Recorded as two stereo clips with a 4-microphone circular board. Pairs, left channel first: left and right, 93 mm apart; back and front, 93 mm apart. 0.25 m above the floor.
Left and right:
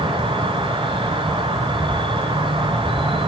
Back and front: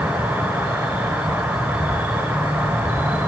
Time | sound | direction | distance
0.0 | an insect | 75° right | 1.2 m